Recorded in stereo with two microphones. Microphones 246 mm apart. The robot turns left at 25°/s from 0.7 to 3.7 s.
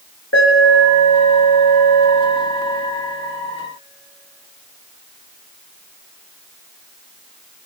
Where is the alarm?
105° left, 5 m; by 2.9 s 50° left, 5 m.